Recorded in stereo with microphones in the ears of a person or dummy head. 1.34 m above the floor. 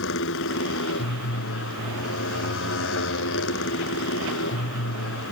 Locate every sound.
0.0 s a motorcycle: 60° left (ahead or behind)